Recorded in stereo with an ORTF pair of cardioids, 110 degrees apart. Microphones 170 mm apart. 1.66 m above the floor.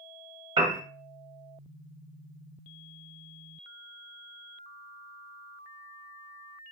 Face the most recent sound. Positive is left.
turn(degrees=-30)